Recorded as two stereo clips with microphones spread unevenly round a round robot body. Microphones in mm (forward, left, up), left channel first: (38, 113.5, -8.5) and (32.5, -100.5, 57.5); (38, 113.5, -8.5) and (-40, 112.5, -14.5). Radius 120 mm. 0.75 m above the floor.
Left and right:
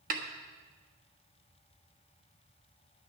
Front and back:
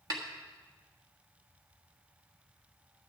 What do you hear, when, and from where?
0.1 s a snare drum: 150° right, 1.3 m